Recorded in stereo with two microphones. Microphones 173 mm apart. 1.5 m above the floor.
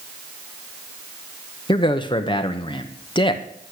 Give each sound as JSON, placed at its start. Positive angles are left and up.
{"t": 1.7, "sound": "a man speaking", "side_deg": 25, "distance_m": 1.0}